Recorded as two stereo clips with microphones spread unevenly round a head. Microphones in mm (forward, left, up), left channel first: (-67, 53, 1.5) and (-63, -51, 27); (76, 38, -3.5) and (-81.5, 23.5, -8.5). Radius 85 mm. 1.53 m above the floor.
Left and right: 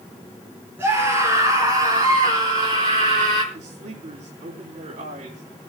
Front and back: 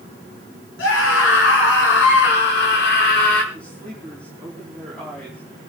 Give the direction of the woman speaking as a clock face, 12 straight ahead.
3 o'clock.